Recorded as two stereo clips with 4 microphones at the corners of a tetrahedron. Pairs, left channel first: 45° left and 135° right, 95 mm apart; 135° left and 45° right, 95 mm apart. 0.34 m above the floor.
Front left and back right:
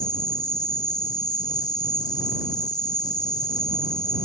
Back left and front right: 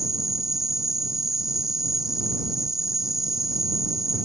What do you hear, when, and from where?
0.0 s an insect: 40° left